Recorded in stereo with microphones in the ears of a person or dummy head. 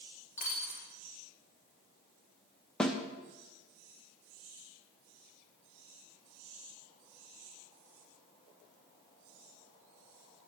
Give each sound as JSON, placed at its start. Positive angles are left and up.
{"t": 0.4, "sound": "a dropped coin", "side_deg": 40, "distance_m": 4.0}
{"t": 2.8, "sound": "a snare drum", "side_deg": 5, "distance_m": 1.0}